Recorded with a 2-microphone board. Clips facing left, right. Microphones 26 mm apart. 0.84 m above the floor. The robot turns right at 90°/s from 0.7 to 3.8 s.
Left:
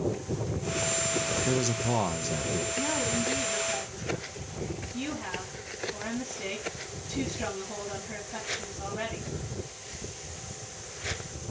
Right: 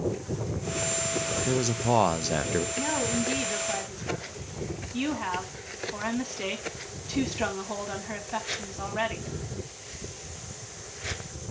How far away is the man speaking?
About 0.6 m.